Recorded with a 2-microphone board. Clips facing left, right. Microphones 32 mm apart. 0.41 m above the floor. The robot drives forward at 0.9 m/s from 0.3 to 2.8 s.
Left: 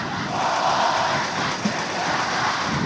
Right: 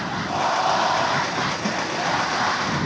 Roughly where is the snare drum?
Left.